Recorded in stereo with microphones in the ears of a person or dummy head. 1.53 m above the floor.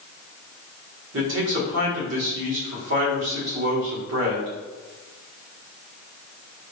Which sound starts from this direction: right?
A man speaking, at 1.1 s.